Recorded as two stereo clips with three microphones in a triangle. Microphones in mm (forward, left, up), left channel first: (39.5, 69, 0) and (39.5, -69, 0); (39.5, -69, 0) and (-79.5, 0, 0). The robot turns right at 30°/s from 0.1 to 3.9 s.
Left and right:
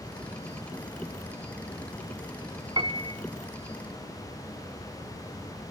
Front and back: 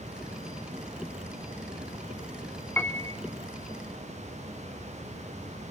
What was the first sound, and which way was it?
A piano, 95° right.